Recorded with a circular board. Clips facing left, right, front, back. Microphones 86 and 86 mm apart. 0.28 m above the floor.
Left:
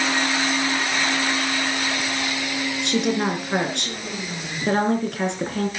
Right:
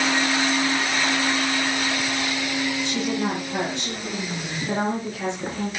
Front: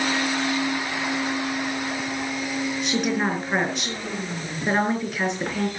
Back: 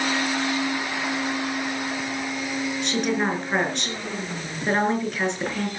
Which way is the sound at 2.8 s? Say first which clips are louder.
Left 3 dB, even; 90° left.